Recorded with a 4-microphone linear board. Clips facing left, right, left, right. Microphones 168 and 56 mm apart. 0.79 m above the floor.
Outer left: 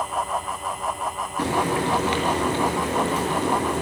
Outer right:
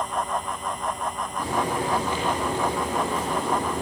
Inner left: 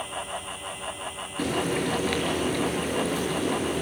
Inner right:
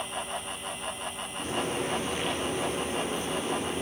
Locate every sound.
1.4 s frying: 85° left, 8 m